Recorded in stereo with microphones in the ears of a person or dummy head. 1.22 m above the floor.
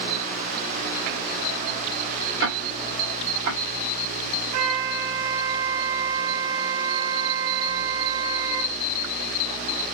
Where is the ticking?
60° right (ahead or behind), 2.5 m.